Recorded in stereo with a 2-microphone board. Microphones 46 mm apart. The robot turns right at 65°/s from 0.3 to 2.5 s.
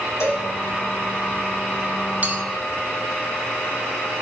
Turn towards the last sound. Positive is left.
turn(degrees=-25)  # may be behind; listen again after turning